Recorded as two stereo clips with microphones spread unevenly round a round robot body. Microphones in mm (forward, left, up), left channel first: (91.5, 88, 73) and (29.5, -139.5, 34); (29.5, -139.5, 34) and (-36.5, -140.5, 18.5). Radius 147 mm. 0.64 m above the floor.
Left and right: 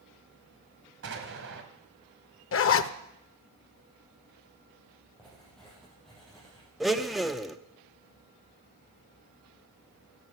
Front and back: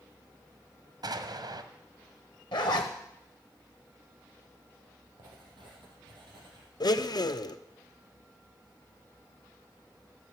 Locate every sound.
1.0 s an explosion: 155° right, 1.7 m
2.5 s a zipper: 40° left, 0.7 m
5.2 s writing: 160° left, 4 m
6.8 s a blender: 20° right, 0.9 m